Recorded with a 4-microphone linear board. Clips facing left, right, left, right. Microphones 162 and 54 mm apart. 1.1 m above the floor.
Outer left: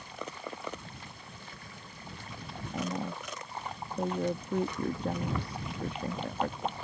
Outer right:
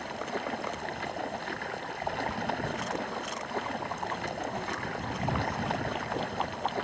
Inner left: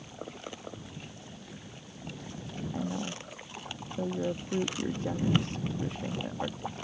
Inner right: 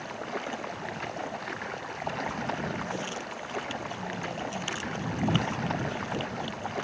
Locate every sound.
0.0 s running water: 75° right (ahead or behind)
2.7 s a woman speaking: 85° left